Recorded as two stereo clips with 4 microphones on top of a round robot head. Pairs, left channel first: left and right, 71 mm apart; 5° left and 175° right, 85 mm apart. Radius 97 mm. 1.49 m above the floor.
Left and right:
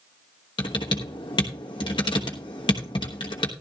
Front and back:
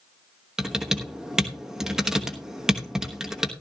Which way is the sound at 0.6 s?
100° left.